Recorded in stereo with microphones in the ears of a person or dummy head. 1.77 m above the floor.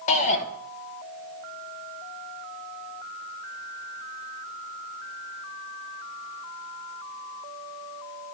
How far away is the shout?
About 1.7 m.